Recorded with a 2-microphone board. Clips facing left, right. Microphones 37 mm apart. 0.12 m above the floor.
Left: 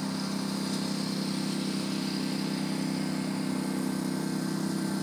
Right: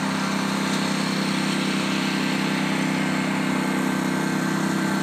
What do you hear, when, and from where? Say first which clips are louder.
0.0 s a lawn mower: right 9 dB; 60° right (ahead or behind)